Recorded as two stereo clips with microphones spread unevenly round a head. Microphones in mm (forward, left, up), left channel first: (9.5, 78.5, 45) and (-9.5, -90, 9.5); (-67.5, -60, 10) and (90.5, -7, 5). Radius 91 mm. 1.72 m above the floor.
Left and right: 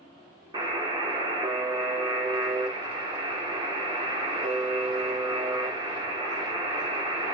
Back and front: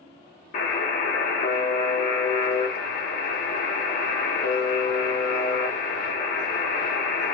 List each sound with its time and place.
0.5 s a buzzer: 165° right, 0.6 m